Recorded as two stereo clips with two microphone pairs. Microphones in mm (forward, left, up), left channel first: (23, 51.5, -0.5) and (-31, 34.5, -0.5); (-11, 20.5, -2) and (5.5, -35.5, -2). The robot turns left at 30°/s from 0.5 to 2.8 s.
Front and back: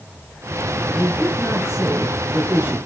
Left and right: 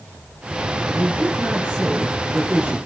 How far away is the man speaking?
About 2 m.